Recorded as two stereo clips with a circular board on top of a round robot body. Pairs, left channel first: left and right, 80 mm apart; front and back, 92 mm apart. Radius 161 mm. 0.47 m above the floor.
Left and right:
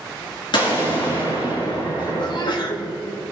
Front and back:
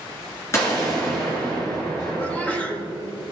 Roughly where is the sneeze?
Left.